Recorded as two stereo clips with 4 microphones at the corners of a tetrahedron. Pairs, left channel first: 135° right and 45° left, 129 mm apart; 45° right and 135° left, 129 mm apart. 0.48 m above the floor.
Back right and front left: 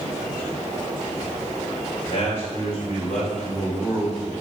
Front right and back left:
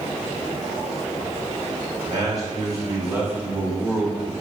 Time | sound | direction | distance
2.1 | a man speaking | 170° right | 2.5 m